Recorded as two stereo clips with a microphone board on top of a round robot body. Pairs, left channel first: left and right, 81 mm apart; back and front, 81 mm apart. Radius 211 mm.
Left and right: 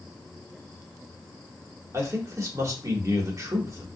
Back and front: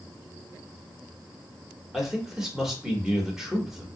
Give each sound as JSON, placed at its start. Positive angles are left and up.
{"t": 1.9, "sound": "a man speaking", "azimuth_deg": -80, "distance_m": 1.3}